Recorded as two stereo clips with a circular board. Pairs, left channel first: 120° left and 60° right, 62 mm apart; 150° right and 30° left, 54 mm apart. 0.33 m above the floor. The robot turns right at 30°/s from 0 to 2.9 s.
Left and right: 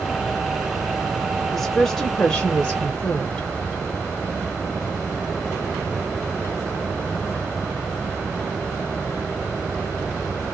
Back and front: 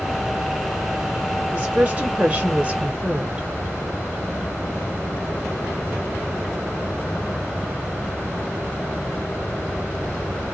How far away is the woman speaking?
About 0.9 m.